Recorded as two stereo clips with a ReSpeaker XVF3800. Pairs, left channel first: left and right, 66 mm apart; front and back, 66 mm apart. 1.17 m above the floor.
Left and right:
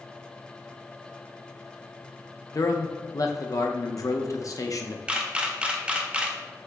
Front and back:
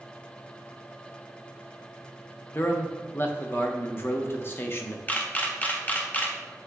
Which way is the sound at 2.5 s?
55° left.